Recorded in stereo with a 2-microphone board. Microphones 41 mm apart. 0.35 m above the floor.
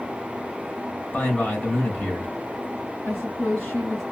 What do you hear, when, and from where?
1.1 s a man speaking: 40° left (ahead or behind), 2.5 m
3.0 s a woman speaking: 40° left (ahead or behind), 3 m